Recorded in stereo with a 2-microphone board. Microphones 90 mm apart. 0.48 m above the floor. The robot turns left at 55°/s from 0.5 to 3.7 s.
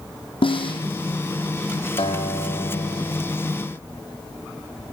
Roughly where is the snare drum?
Left.